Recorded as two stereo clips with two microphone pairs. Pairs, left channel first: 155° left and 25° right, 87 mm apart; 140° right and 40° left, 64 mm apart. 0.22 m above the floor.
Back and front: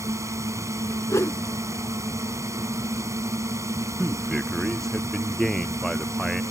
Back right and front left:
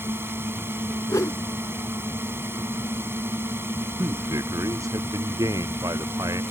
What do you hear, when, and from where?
0.0 s a drone: 10° left
1.1 s a whoosh: 155° right
4.0 s a man speaking: 65° left